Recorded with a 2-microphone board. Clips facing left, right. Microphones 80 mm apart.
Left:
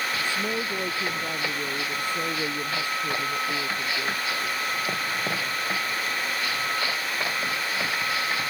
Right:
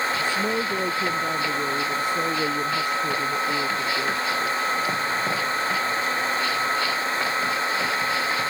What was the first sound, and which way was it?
A woman speaking, 10° right (ahead or behind).